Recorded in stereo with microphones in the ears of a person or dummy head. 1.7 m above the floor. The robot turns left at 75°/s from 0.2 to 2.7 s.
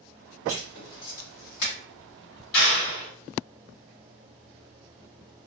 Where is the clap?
50° left (ahead or behind), 1.5 m; by 3.1 s 40° left (ahead or behind), 1.5 m.